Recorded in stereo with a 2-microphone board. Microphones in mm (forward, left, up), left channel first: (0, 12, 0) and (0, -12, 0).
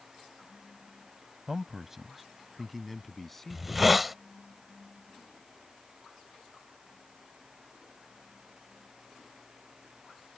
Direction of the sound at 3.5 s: 5° right (ahead or behind).